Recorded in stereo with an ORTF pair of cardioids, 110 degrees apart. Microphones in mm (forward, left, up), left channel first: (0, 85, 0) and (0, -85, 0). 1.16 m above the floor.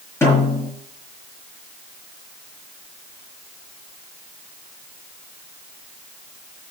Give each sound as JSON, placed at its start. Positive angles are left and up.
{"t": 0.2, "sound": "a snare drum", "azimuth_deg": 15, "distance_m": 6.0}